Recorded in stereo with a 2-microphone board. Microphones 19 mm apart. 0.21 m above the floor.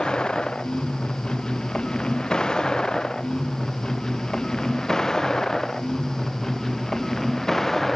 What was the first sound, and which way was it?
A vehicle, 50° left (ahead or behind).